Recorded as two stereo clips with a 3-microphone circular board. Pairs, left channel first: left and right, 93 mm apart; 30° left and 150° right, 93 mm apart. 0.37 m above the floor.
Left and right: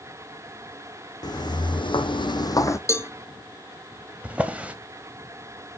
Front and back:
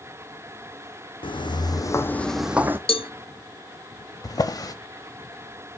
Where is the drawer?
15° right, 0.8 m.